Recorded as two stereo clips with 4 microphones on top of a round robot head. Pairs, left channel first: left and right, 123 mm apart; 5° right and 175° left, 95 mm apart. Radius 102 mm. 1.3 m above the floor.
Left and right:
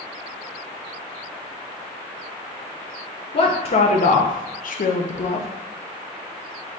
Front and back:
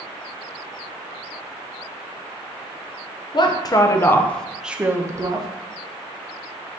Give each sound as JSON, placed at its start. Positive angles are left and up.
{"t": 3.3, "sound": "a woman speaking", "azimuth_deg": 40, "distance_m": 0.8}